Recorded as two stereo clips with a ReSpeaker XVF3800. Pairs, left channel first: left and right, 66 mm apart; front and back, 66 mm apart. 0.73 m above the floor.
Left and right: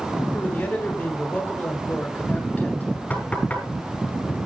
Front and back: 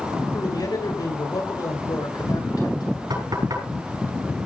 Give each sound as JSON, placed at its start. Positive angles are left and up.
{"t": 0.3, "sound": "a man speaking", "azimuth_deg": 15, "distance_m": 8.0}
{"t": 3.1, "sound": "knocking", "azimuth_deg": 160, "distance_m": 7.5}